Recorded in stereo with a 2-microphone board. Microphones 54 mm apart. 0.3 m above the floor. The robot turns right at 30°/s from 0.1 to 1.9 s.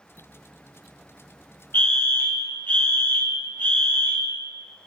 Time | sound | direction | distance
1.7 | a fire alarm | 40° left (ahead or behind) | 2.5 m